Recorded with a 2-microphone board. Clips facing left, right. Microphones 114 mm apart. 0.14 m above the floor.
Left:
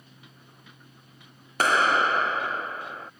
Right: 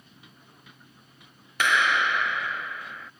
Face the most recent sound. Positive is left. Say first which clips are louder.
# left 2 dB
turn(degrees=40)  # may be behind; listen again after turning